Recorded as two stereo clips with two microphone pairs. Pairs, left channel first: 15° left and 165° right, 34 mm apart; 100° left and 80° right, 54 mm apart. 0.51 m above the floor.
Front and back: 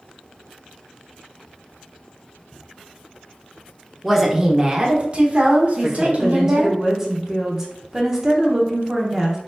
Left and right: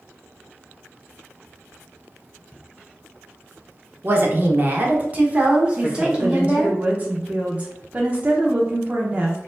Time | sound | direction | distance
4.0 | a woman speaking | 80° right | 0.9 m
5.8 | a woman speaking | 110° right | 0.8 m